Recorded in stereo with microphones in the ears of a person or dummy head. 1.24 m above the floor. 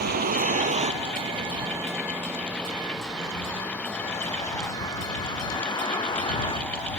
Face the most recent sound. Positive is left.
turn(degrees=20)  # may be behind; listen again after turning